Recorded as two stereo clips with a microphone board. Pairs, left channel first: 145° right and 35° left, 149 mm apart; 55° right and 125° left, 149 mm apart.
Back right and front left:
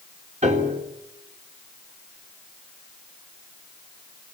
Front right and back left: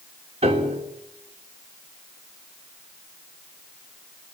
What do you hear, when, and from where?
0.4 s a piano: 75° left, 3.5 m